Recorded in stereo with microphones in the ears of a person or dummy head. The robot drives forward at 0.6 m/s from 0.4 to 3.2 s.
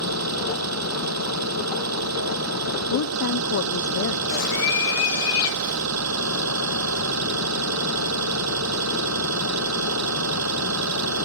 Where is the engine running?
80° right; by 11.2 s 75° right (ahead or behind).